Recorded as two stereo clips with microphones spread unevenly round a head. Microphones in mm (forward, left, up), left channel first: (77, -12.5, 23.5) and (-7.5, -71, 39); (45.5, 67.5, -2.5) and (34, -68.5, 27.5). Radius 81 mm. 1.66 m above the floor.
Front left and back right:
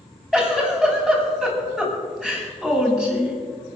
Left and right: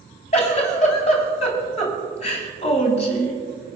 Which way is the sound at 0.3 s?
130° left.